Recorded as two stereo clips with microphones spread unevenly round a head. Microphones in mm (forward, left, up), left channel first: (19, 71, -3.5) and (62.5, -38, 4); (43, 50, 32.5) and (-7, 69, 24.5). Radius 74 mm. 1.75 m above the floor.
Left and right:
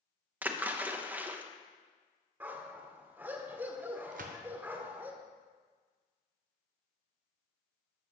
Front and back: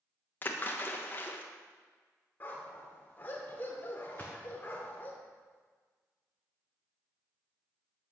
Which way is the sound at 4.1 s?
100° right.